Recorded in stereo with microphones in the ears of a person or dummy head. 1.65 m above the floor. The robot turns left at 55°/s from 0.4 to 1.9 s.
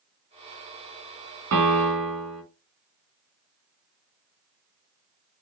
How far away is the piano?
About 1.9 m.